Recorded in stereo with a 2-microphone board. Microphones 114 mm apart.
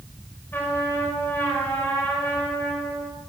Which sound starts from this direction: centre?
A trumpet, at 0.5 s.